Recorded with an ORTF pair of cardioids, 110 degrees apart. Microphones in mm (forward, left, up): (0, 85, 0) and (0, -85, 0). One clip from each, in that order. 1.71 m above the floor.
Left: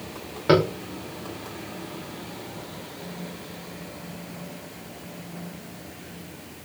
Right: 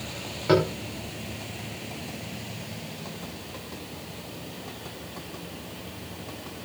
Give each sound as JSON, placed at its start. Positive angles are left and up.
{"t": 0.5, "sound": "tapping", "azimuth_deg": 35, "distance_m": 3.5}